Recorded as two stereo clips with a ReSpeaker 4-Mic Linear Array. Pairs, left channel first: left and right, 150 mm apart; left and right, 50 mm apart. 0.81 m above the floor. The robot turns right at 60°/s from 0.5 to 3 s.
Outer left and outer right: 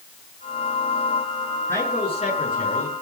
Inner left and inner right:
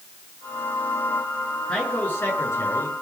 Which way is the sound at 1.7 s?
15° left.